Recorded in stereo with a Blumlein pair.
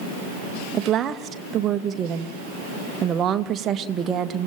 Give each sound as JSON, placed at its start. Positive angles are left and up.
{"t": 0.7, "sound": "a woman speaking", "azimuth_deg": -25, "distance_m": 1.6}